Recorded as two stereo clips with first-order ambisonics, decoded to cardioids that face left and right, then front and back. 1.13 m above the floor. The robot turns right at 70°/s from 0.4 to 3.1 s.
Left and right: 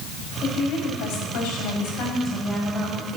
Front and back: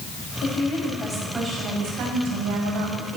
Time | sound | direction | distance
0.4 | a woman speaking | 30° left | 6 m